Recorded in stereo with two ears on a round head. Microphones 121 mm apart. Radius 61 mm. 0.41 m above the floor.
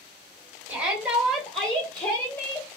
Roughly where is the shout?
Centre.